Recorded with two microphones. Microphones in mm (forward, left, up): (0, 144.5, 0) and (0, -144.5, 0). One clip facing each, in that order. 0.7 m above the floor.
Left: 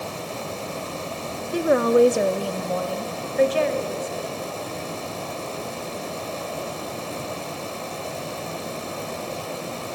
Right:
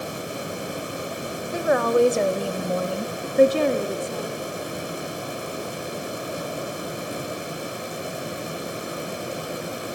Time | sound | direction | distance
1.5 | a woman speaking | 40° left (ahead or behind) | 0.9 m